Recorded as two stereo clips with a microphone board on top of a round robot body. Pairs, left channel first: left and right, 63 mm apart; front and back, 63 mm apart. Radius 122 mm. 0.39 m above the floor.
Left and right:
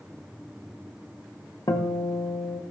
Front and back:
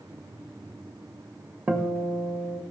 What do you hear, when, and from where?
1.7 s a guitar: 110° left, 1.5 m